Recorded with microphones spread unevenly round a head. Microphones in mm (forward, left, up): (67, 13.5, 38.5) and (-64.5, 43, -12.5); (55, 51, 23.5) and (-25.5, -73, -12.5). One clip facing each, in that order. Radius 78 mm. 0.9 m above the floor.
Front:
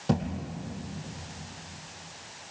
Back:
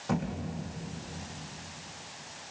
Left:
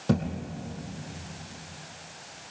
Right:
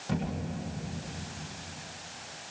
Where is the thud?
35° left, 5.5 m.